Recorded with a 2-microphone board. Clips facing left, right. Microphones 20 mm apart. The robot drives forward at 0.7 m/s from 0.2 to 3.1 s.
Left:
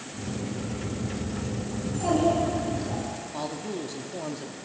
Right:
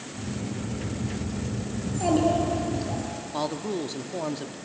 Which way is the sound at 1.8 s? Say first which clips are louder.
Right 1 dB; 20° right (ahead or behind).